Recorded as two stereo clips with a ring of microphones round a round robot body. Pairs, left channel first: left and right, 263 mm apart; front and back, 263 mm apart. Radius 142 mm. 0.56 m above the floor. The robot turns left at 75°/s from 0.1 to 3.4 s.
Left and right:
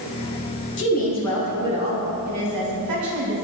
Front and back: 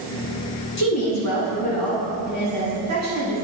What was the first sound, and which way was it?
A woman speaking, 50° left.